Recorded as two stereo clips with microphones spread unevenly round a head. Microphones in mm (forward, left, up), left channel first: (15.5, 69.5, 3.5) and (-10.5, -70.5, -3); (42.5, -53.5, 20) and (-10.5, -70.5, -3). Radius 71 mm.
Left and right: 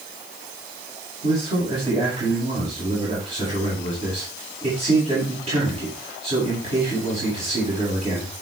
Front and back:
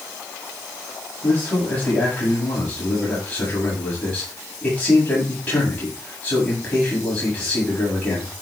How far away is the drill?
No drill in this recording.